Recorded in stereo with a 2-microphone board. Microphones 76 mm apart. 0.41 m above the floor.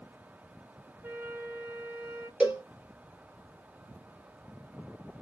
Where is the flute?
30° right (ahead or behind), 1.2 m.